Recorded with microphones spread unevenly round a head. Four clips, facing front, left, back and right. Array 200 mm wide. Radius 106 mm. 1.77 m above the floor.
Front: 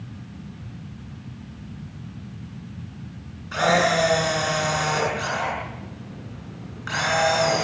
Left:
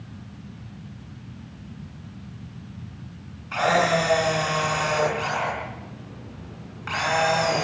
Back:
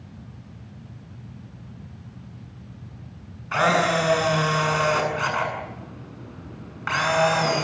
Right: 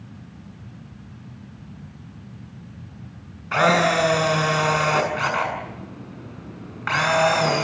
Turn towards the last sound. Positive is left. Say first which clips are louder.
# right 3 dB, front 1 dB
turn(degrees=-105)